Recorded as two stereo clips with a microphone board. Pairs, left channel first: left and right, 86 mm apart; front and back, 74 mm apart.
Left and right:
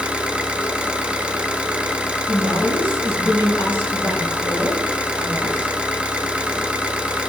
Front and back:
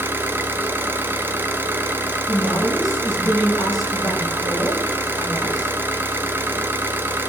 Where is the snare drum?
I don't hear a snare drum.